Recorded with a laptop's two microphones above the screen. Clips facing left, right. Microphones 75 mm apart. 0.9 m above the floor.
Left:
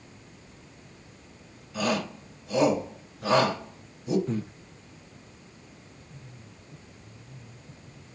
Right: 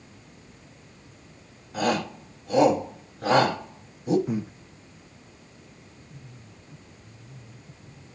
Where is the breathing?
15° right (ahead or behind), 0.6 m.